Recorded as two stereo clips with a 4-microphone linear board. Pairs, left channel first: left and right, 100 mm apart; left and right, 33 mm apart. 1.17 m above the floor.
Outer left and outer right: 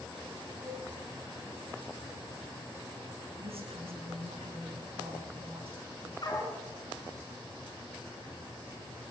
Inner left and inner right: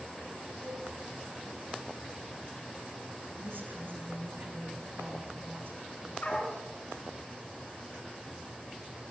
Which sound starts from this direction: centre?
A cowbell, at 0.6 s.